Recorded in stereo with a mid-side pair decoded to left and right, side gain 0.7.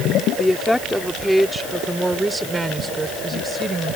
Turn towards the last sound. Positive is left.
turn(degrees=-20)